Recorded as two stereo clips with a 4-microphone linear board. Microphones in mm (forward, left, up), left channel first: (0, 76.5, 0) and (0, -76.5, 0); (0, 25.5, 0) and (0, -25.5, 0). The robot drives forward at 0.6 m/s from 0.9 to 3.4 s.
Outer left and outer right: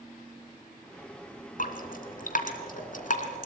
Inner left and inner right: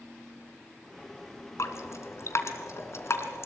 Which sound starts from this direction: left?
Dripping, at 1.6 s.